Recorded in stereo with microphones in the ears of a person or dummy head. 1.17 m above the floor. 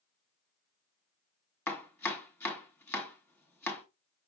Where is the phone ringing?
I don't hear a phone ringing.